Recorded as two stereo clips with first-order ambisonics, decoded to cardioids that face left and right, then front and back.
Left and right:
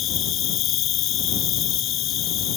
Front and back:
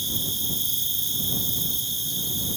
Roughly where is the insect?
Left.